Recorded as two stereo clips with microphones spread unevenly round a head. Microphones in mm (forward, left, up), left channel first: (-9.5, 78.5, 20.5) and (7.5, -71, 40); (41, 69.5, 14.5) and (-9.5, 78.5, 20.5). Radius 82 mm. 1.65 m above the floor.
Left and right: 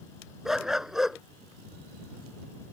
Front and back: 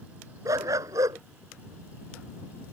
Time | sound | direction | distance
0.5 | a dog barking | 170° right | ?